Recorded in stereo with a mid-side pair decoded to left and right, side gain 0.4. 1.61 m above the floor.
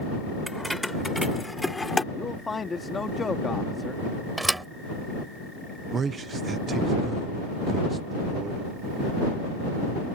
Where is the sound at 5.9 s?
50° right.